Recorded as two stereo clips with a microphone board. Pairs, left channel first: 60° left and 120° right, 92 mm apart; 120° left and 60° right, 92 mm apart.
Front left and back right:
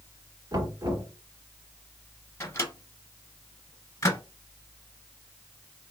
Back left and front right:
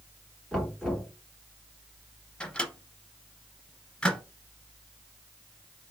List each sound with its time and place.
0.5 s knocking: 150° right, 1.5 m
2.4 s a microwave: 50° left, 0.9 m